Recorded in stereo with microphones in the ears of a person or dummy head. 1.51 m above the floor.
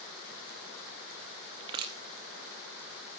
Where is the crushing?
25° right (ahead or behind), 1.1 m.